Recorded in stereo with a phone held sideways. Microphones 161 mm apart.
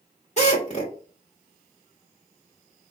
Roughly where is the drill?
Left.